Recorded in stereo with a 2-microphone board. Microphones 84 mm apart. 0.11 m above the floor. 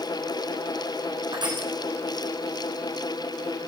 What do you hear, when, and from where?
1.3 s crushing: 60° right (ahead or behind), 8 m